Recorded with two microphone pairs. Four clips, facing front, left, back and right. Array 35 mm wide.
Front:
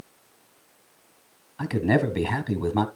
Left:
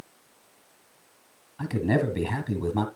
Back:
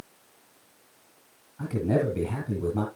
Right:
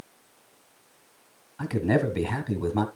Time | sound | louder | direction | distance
1.6 | a man speaking | right 1 dB, front 3 dB | 20° right | 1.3 m